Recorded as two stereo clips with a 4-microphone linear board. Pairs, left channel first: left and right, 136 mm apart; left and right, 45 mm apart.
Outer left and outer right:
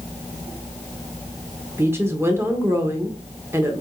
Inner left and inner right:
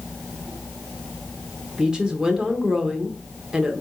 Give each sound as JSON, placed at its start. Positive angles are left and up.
{"t": 1.8, "sound": "a woman speaking", "side_deg": -20, "distance_m": 0.9}